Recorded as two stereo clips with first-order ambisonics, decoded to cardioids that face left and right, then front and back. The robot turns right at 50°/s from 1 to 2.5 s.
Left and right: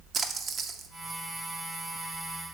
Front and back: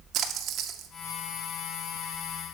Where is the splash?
150° right, 0.6 m.